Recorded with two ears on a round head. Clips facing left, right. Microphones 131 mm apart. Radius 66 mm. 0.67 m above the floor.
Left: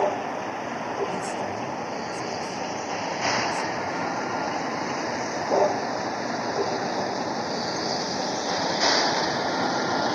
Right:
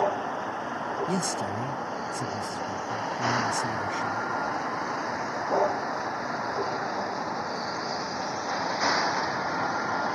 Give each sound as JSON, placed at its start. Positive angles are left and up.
{"t": 0.0, "sound": "a vehicle", "side_deg": 15}
{"t": 1.1, "sound": "a man speaking", "side_deg": -80}